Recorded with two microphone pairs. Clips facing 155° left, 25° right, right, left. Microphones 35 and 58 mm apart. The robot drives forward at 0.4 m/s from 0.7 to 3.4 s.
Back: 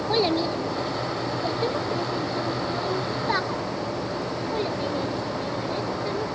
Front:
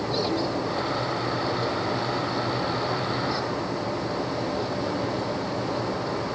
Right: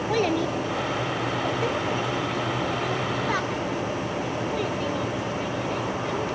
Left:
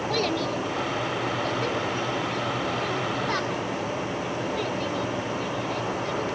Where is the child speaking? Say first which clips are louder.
Back 5 dB, right 4 dB; 160° right, 1.5 m; by 6.3 s 170° right, 2.5 m.